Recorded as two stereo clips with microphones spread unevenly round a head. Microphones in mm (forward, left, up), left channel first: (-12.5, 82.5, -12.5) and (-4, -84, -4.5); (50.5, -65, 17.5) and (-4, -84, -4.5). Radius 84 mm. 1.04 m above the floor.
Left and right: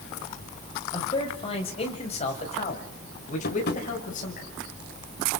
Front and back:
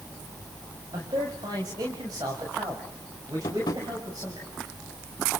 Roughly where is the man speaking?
Behind left.